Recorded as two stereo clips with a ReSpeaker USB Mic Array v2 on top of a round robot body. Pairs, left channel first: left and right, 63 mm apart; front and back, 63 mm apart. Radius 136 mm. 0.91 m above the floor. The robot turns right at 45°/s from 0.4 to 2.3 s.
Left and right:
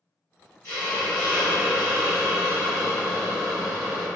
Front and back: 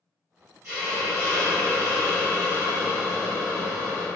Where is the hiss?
135° left, 0.8 m; by 4.1 s 150° right, 0.8 m.